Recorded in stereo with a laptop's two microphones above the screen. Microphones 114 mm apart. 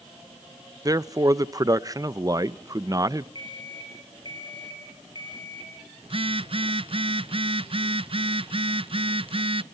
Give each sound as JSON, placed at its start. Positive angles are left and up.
{"t": 0.8, "sound": "a man speaking", "side_deg": -30, "distance_m": 0.7}
{"t": 3.4, "sound": "an alarm clock", "side_deg": 35, "distance_m": 4.0}
{"t": 6.0, "sound": "a phone buzzing", "side_deg": -50, "distance_m": 0.5}